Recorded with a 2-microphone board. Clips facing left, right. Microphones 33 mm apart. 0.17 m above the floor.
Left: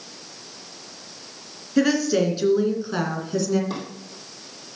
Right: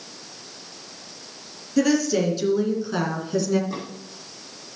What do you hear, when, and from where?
1.8 s a woman speaking: 20° left (ahead or behind), 2.5 m; by 3.6 s 5° right (ahead or behind), 2 m
3.7 s a drawer: 80° left, 4.5 m